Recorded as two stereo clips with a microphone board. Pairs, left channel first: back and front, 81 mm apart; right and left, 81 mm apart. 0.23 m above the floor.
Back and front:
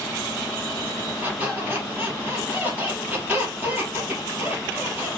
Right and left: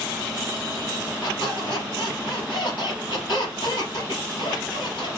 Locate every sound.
1.2 s a squeak: 65° right, 3.5 m